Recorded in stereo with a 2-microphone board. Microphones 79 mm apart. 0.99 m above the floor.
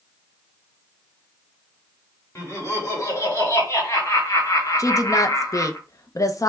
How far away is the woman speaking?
About 0.6 m.